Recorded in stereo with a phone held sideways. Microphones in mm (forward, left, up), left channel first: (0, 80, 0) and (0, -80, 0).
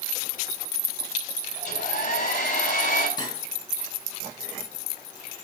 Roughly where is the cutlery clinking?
Left.